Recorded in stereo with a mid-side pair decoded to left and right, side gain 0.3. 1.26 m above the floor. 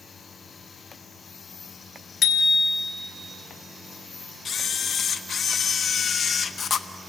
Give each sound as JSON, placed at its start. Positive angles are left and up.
{"t": 2.2, "sound": "a bicycle bell", "azimuth_deg": 65, "distance_m": 2.0}
{"t": 4.5, "sound": "a camera shutter", "azimuth_deg": 60, "distance_m": 0.8}